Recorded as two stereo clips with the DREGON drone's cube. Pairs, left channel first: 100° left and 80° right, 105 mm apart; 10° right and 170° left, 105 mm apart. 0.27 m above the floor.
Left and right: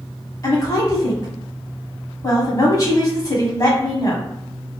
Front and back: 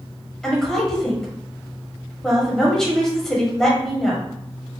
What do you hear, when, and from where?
0.4 s a woman speaking: 70° left, 1.3 m